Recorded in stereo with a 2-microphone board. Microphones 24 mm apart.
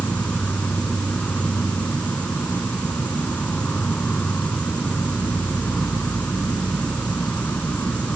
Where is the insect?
80° left.